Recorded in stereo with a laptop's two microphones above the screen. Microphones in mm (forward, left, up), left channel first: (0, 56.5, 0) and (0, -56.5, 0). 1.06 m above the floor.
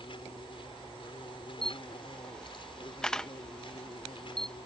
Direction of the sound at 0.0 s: 50° left (ahead or behind).